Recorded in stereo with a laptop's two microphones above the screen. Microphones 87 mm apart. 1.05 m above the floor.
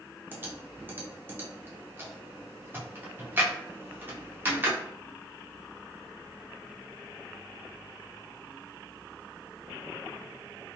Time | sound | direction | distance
0.3 | typing on a keyboard | 25° right (ahead or behind) | 0.6 m